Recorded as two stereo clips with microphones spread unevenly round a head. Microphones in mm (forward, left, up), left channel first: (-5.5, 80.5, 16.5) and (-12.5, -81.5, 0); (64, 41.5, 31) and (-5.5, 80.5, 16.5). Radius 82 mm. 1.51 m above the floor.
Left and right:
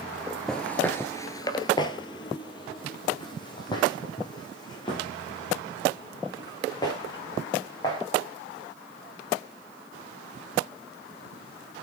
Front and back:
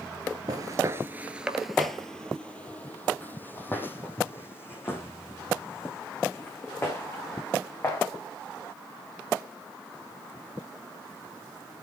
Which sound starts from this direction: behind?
Footsteps, at 0.5 s.